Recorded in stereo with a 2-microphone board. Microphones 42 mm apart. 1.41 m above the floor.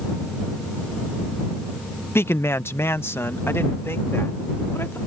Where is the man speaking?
80° left; by 5.0 s 90° left.